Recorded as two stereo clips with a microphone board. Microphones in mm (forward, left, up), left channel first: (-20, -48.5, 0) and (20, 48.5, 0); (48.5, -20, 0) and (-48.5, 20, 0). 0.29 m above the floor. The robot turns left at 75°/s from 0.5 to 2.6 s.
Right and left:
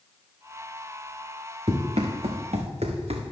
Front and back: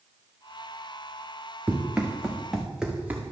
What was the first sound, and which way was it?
Running footsteps, 85° left.